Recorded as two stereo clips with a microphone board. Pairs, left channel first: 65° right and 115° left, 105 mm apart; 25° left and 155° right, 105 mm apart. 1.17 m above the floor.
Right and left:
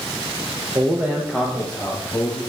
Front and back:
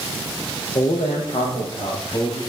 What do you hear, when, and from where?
0.8 s a man speaking: 60° left, 0.8 m; by 2.4 s straight ahead, 1.9 m